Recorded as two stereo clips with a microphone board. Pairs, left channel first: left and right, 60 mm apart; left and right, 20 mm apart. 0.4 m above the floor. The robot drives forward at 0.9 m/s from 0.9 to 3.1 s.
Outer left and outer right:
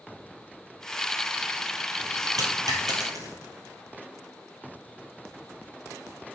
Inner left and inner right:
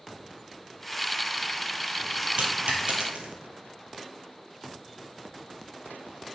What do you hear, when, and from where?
2.4 s a dropped coin: 80° right, 1.8 m